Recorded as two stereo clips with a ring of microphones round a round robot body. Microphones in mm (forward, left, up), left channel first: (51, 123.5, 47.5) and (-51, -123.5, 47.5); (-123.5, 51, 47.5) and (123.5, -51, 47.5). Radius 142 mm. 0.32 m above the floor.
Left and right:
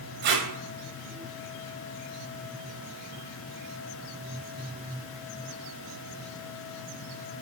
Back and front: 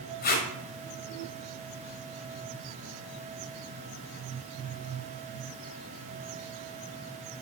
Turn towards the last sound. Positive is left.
turn(degrees=-155)